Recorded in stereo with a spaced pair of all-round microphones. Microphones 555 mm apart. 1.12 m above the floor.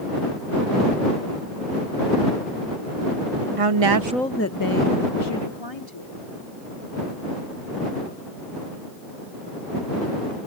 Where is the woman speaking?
75° right (ahead or behind); by 6.2 s 55° left (ahead or behind).